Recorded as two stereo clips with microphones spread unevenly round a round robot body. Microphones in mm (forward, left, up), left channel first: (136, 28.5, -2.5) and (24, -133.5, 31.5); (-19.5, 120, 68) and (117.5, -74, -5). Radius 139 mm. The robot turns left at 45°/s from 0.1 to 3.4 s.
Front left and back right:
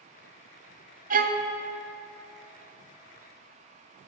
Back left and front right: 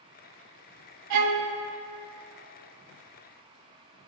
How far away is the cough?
No cough in this recording.